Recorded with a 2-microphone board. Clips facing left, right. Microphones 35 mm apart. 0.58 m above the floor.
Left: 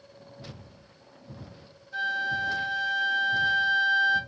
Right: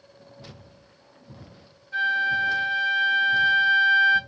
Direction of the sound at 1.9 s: 45° right (ahead or behind).